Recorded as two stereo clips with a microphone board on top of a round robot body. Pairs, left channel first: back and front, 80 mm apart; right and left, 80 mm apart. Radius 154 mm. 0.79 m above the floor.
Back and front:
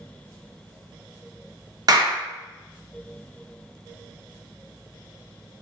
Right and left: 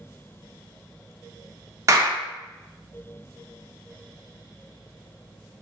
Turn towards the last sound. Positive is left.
turn(degrees=40)